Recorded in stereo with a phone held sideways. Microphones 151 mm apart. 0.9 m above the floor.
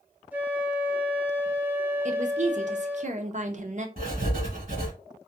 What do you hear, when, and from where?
0.3 s a flute: 10° right (ahead or behind), 1.0 m
2.0 s a woman speaking: 55° right (ahead or behind), 0.6 m
4.0 s writing: 70° right (ahead or behind), 1.9 m